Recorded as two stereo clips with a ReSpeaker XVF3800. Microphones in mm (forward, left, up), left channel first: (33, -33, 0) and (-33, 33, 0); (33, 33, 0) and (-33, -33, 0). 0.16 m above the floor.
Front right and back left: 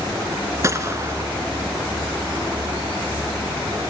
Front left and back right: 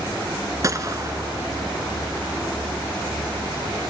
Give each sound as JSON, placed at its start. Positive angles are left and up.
{"t": 0.6, "sound": "a gunshot", "azimuth_deg": -175, "distance_m": 1.2}